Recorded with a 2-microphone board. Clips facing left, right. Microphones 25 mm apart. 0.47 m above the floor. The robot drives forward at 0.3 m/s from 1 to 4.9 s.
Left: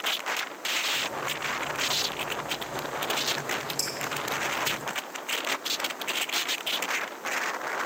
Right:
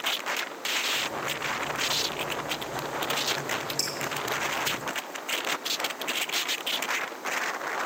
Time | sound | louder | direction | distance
3.8 | dripping | right 1 dB | centre (ahead or behind) | 5 m